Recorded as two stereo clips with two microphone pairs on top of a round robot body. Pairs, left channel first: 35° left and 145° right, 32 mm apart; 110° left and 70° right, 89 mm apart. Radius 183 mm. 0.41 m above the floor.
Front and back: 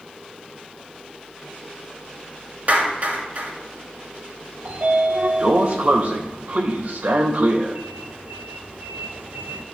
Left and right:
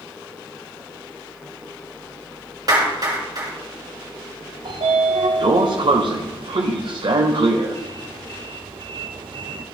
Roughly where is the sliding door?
Right.